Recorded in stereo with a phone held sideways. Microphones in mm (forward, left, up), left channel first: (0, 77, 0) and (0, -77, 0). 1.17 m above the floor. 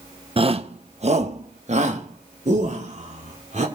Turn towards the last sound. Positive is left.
turn(degrees=-50)  # may be behind; listen again after turning